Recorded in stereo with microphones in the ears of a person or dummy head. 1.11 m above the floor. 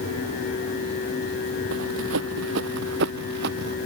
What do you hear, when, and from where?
1.7 s running footsteps: 70° right (ahead or behind); by 3.8 s 65° right (ahead or behind)